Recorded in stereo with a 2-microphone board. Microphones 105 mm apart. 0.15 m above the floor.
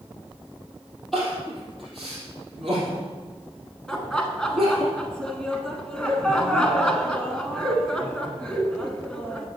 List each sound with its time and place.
1.1 s crying: 5° left (ahead or behind), 4 m
3.9 s laughter: 10° left (ahead or behind), 1.1 m